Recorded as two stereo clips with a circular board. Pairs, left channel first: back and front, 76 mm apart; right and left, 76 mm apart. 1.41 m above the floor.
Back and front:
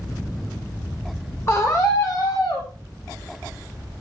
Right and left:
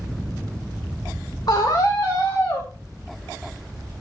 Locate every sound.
1.5 s a scream: 125° right, 2.5 m; by 2.7 s 150° right, 3.5 m